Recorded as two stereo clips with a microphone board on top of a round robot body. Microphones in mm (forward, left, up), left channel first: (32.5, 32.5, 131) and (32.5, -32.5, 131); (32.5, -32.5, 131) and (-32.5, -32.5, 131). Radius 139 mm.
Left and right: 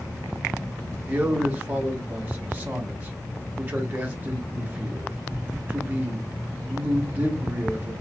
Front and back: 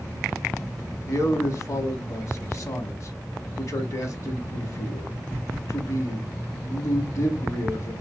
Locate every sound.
1.1 s a man speaking: 25° right, 1.4 m